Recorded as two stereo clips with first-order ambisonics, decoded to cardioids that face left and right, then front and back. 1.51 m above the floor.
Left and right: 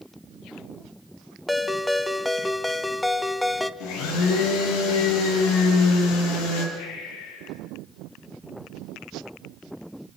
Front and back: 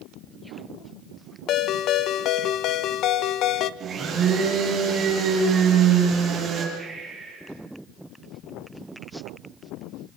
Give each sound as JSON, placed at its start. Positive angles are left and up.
{"t": 1.5, "sound": "a ringtone", "azimuth_deg": 5, "distance_m": 0.8}
{"t": 3.8, "sound": "a blender", "azimuth_deg": 115, "distance_m": 9.0}
{"t": 6.8, "sound": "breathing", "azimuth_deg": 95, "distance_m": 7.5}